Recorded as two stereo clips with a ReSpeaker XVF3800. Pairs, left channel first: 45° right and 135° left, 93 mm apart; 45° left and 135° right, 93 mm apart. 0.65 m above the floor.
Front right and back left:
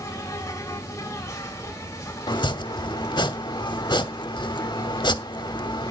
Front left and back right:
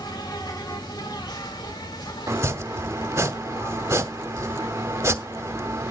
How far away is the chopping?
About 1.0 m.